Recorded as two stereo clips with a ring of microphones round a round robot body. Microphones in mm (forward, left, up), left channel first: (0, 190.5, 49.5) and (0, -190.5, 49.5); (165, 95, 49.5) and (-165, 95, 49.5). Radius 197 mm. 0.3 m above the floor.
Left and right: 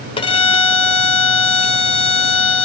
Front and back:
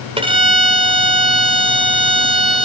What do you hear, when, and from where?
0.2 s a violin: 140° left, 1.5 m